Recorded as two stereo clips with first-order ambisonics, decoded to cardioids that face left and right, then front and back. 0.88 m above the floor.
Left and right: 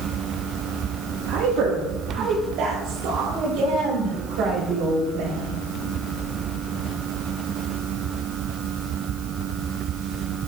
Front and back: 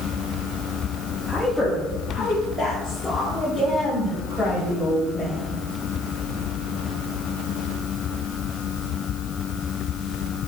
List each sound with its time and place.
1.3 s a woman speaking: 85° right, 0.9 m; by 5.6 s 90° right, 3.5 m